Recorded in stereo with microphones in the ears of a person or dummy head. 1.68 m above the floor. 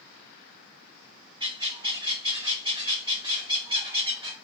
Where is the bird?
20° right (ahead or behind), 1.0 m.